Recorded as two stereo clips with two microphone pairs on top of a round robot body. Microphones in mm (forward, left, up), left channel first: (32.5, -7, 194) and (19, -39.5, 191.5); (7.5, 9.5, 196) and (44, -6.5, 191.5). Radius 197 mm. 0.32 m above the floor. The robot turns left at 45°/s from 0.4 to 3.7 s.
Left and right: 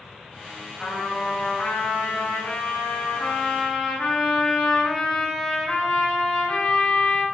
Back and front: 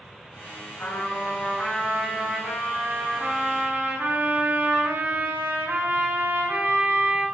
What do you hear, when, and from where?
0.8 s a trumpet: 145° left, 3.5 m; by 7.2 s 15° left, 3.5 m